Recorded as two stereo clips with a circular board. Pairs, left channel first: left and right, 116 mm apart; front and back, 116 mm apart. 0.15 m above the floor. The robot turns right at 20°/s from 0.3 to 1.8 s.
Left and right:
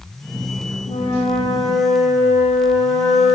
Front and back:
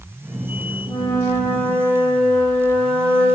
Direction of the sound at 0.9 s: 65° left.